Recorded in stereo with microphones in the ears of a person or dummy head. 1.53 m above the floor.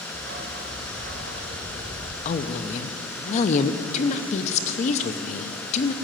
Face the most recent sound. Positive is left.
turn(degrees=40)  # may be behind; listen again after turning